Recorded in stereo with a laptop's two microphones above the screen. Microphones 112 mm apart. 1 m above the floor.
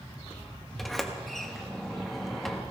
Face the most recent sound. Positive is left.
turn(degrees=0)  # may be behind; listen again after turning